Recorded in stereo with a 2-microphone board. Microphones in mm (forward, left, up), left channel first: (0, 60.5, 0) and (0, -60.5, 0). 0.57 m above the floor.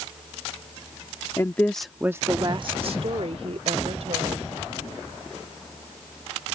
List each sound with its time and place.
1.4 s a woman speaking: 25° left (ahead or behind); by 4.5 s 60° right (ahead or behind)